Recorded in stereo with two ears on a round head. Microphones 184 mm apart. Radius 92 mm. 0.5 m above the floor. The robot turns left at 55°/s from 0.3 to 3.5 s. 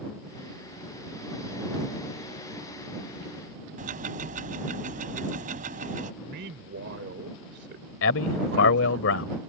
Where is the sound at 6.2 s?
60° right (ahead or behind).